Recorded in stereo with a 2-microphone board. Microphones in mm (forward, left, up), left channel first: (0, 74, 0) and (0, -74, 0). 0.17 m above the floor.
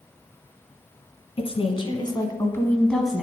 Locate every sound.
1.4 s a woman speaking: 45° left (ahead or behind), 1.5 m; by 3.2 s 5° right (ahead or behind), 1.1 m